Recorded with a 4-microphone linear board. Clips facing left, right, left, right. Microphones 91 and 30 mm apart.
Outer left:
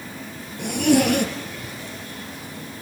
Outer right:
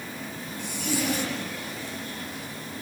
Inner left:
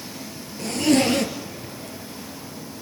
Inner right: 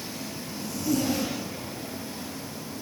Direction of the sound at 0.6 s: 60° left (ahead or behind).